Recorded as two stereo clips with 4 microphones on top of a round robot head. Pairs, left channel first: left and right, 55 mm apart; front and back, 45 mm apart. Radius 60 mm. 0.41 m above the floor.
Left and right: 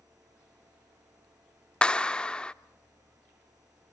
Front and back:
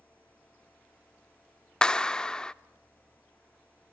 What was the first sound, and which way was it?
A clap, 45° left.